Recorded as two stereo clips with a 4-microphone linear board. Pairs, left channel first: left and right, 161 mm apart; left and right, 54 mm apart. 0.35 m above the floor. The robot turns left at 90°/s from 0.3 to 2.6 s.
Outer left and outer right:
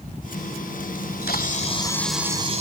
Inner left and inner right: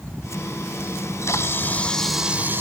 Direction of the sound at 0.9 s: 105° left.